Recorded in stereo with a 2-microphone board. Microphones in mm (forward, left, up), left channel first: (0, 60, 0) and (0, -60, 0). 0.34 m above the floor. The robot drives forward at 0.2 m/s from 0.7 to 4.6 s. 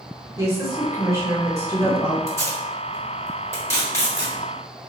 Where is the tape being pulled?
25° left (ahead or behind), 1.3 m.